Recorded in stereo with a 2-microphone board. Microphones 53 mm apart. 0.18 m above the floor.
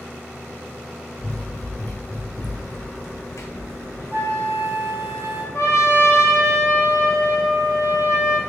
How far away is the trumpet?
About 1.4 m.